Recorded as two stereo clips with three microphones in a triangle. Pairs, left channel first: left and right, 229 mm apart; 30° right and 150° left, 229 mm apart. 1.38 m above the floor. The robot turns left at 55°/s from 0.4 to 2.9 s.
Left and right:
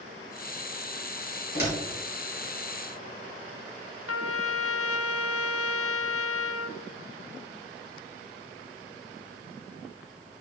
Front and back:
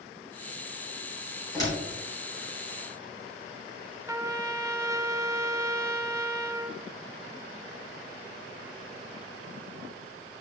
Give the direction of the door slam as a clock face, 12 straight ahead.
10 o'clock.